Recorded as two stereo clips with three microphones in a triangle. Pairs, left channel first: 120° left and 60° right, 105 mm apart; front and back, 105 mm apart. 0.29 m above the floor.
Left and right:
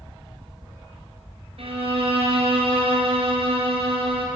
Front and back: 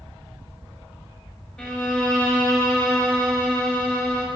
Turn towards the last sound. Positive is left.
turn(degrees=-80)